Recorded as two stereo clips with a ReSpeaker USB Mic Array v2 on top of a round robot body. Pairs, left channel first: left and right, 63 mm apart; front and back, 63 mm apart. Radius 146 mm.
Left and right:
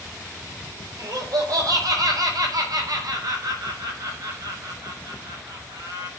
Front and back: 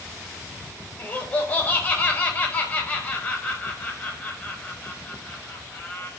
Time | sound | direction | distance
1.0 | laughter | 65° right | 4.5 m